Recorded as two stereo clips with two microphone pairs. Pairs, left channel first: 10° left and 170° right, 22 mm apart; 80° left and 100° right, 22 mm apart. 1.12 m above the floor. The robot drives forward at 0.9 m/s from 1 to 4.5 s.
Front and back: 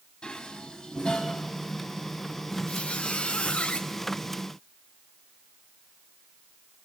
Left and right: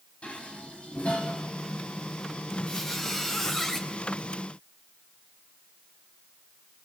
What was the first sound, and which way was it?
Dishes clattering, 55° left.